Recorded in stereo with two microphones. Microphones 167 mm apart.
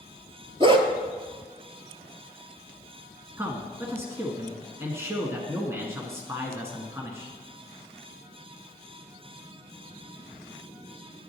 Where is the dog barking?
30° right (ahead or behind), 1.1 m.